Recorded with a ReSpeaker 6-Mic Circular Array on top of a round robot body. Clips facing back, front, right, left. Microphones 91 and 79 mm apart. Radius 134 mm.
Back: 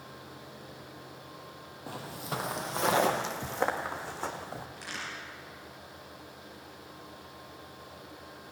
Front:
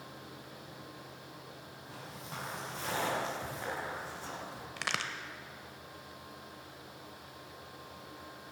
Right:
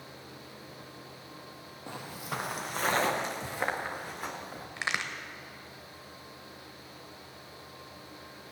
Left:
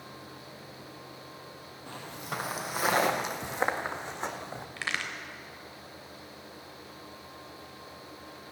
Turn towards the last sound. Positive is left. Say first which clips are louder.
# front 3 dB, right 1 dB
turn(degrees=-20)